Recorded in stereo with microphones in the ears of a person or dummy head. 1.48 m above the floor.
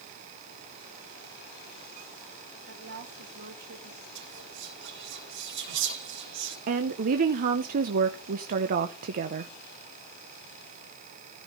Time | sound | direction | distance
2.7 | a woman speaking | 55° right (ahead or behind) | 2.5 m
4.2 | whispering | 65° right (ahead or behind) | 3.5 m
6.7 | a woman speaking | 45° right (ahead or behind) | 0.6 m